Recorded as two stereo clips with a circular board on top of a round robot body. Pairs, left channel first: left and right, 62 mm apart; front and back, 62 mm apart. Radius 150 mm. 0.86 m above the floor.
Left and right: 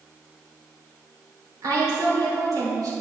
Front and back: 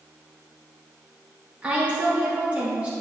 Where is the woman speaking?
110° right, 3 m.